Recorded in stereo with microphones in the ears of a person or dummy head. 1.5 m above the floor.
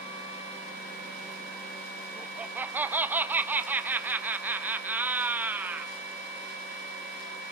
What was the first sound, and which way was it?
Laughter, 10° right (ahead or behind).